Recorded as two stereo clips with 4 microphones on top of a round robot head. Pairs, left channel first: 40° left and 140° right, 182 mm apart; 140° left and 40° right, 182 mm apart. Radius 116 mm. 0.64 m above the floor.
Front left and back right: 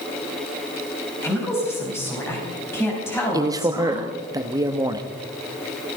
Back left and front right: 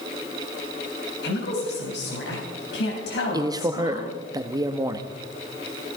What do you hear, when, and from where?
1.2 s a woman speaking: 115° left, 4.5 m
3.3 s a man speaking: 90° right, 1.2 m